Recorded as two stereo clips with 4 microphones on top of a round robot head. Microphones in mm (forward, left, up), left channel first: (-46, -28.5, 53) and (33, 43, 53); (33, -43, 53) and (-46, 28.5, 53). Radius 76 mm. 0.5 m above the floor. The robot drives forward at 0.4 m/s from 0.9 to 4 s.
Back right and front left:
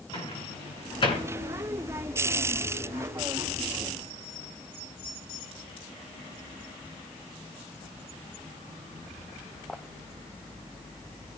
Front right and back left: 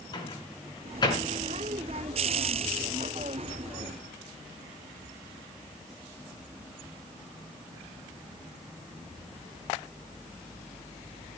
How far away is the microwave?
About 6.5 m.